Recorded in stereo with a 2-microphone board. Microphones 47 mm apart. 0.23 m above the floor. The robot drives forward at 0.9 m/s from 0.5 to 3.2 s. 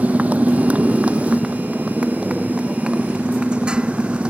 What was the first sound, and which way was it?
A motorcycle, 30° right (ahead or behind).